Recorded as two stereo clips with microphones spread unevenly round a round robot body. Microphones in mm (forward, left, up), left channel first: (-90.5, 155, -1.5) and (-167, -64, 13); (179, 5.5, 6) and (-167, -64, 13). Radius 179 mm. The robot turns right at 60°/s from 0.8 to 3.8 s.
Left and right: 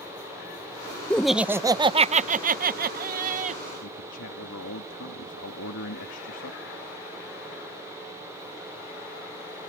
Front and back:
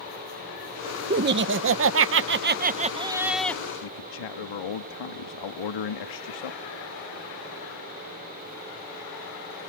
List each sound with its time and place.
1.1 s laughter: 145° left; by 3.6 s 65° right
3.8 s a man speaking: 30° left